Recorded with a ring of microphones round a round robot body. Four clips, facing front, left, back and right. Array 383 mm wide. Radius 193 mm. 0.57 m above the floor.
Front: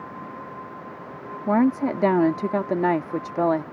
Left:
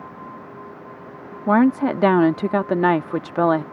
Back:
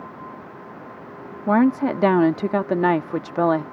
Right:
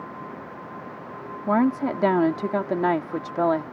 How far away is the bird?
No bird in this recording.